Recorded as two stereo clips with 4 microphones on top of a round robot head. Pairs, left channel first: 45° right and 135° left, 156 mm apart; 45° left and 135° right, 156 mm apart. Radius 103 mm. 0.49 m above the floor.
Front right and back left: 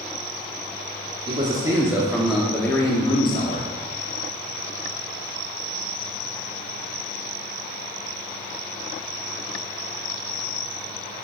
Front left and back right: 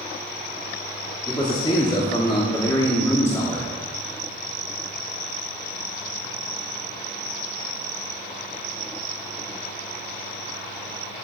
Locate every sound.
1.3 s a man speaking: 95° left, 1.6 m; by 3.7 s 30° right, 1.6 m